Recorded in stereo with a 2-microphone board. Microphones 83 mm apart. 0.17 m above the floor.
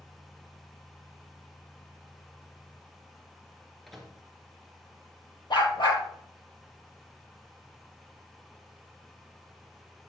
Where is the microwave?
Centre (ahead or behind), 2 m.